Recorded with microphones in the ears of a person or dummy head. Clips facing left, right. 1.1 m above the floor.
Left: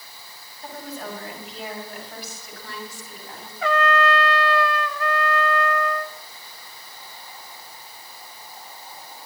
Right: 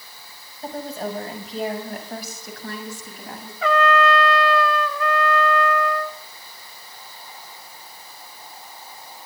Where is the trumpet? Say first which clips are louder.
Right 2 dB; 60° right (ahead or behind), 0.7 m.